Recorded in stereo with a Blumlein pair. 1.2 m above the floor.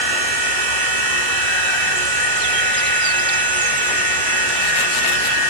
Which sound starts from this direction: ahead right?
A machine running, at 0.0 s.